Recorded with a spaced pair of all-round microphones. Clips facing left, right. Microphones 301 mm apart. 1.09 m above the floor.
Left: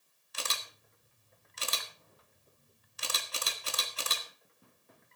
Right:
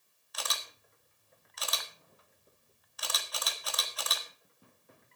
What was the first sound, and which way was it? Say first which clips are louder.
A camera shutter: even; 30° left (ahead or behind).